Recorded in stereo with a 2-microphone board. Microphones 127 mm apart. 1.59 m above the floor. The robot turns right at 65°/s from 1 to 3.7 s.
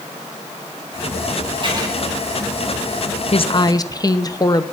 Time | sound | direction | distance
1.6 | writing | 45° right (ahead or behind) | 3 m
3.3 | a woman speaking | 55° left (ahead or behind) | 0.9 m